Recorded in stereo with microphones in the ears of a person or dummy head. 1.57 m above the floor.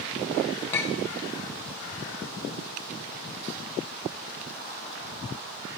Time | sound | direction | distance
0.7 | a clink | 10° left (ahead or behind) | 0.6 m